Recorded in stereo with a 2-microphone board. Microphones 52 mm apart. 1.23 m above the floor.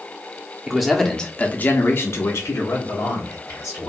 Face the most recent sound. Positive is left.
turn(degrees=60)  # may be behind; listen again after turning